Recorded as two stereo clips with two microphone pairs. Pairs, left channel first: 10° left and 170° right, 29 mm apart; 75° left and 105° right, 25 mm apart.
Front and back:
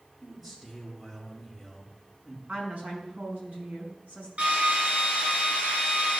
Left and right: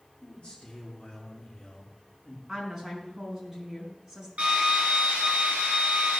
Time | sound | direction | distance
0.2 | a man speaking | 120° left | 3.5 m
2.5 | a woman speaking | straight behind | 5 m
4.4 | a drill | 135° right | 6.5 m